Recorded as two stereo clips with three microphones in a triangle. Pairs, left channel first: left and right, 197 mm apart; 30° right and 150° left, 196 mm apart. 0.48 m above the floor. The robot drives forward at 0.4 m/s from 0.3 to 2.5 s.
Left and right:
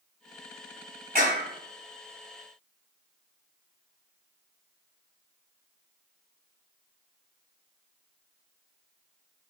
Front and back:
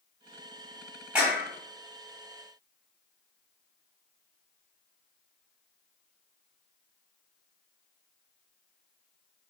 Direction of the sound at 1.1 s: 125° right.